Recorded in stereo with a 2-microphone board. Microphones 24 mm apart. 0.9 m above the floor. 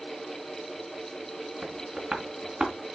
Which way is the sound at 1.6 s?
25° right (ahead or behind).